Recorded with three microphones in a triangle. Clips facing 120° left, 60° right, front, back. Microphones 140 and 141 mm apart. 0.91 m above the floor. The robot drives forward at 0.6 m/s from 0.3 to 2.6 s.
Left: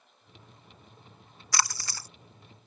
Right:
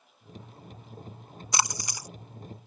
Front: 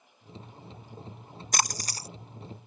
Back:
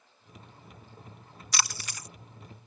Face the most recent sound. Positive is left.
turn(degrees=5)